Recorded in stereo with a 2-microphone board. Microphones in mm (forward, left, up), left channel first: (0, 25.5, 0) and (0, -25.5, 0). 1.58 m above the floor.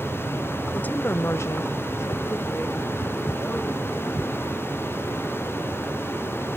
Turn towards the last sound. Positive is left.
turn(degrees=40)  # may be behind; listen again after turning